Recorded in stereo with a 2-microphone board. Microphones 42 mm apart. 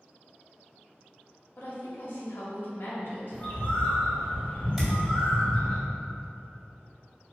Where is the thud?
10° right (ahead or behind), 1.8 m.